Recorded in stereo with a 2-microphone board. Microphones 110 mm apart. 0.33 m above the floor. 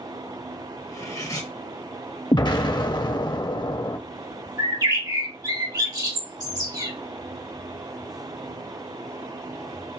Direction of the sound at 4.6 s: 40° right (ahead or behind).